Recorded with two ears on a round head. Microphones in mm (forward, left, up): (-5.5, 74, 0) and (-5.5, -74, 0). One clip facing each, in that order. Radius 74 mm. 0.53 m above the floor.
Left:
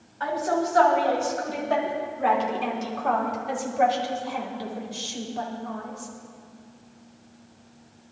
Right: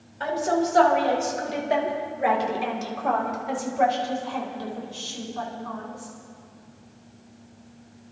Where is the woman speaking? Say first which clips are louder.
Right 1 dB; 35° right (ahead or behind), 3.5 m; by 6.1 s 30° left (ahead or behind), 2.5 m.